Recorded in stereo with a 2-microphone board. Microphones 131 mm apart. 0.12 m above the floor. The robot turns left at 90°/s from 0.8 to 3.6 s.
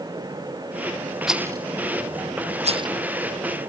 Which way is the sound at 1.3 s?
Centre (ahead or behind).